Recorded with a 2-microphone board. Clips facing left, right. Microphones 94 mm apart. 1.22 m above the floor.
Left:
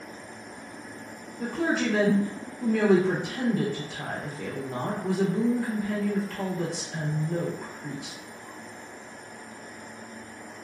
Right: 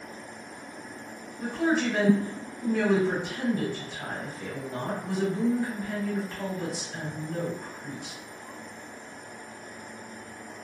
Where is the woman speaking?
85° left, 0.8 m.